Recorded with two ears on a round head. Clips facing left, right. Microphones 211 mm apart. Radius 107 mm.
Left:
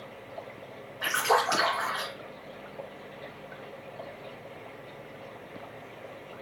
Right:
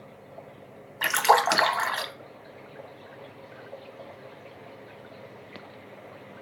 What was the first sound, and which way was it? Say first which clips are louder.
A splash: right 3 dB; 70° right (ahead or behind).